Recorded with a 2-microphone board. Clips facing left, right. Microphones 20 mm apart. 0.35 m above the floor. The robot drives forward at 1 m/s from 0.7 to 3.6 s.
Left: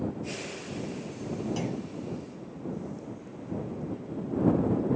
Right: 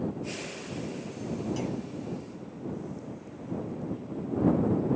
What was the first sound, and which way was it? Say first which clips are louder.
A clunk: even; 15° left (ahead or behind).